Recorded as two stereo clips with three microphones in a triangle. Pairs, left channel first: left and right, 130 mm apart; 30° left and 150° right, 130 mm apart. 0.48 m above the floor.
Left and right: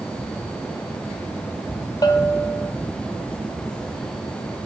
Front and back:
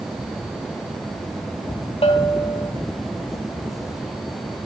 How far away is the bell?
About 1.5 m.